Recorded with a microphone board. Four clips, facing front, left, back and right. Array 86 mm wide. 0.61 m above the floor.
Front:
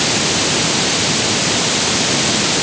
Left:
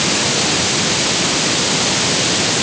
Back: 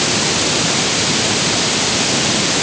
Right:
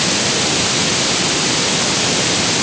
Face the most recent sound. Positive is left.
No sound to turn to.